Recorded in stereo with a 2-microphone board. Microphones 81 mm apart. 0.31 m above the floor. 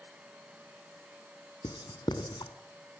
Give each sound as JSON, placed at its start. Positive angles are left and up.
{"t": 1.6, "sound": "writing", "side_deg": 65, "distance_m": 2.0}